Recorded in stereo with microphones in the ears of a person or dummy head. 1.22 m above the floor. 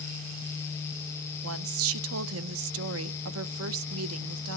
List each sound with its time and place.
1.4 s a woman speaking: 80° right, 0.8 m